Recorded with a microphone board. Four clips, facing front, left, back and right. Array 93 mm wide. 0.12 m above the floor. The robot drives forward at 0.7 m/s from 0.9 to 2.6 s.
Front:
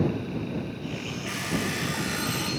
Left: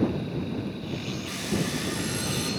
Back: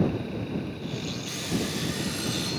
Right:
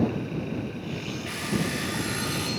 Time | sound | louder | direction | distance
1.3 | an alarm clock | right 1 dB, front 2 dB | 35° right | 8 m